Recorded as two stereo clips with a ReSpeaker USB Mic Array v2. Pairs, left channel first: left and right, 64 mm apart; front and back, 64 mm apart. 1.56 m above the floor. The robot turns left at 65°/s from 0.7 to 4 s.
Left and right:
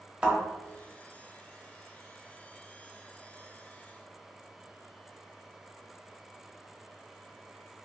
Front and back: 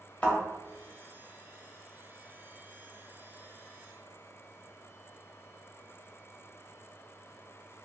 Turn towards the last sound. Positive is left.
turn(degrees=110)